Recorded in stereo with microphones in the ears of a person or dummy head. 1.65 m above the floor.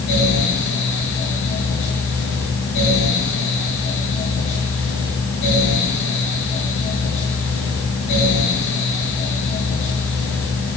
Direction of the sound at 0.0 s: 65° left (ahead or behind).